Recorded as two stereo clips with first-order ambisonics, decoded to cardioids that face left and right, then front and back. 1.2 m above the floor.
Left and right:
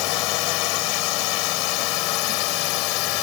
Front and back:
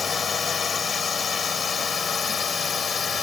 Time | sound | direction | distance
0.0 | a drone | 70° left | ?